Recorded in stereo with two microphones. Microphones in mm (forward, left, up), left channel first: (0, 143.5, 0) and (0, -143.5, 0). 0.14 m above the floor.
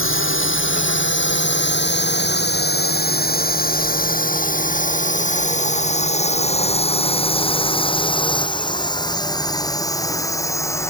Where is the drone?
45° left (ahead or behind); by 10.9 s 10° left (ahead or behind).